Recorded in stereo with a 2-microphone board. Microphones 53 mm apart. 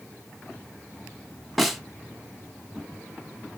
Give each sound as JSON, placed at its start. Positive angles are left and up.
{"t": 1.6, "sound": "a snare drum", "side_deg": 0, "distance_m": 1.3}